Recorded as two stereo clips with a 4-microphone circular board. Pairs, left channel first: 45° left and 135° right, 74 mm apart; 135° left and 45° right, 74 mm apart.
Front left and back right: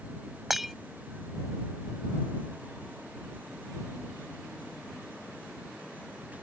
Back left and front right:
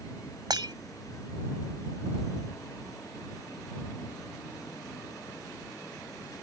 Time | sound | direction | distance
0.5 | breaking glass | 50° right | ?